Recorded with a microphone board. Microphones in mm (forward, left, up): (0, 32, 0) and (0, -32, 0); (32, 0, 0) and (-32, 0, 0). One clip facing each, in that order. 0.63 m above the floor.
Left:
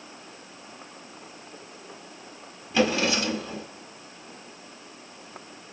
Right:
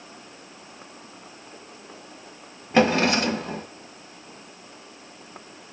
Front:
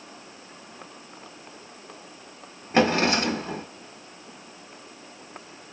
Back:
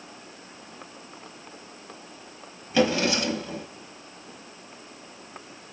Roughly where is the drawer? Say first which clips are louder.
Right 4 dB, front 2 dB; ahead right.